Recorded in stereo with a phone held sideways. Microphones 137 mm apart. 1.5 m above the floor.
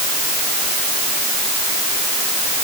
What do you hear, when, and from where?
Only background noise.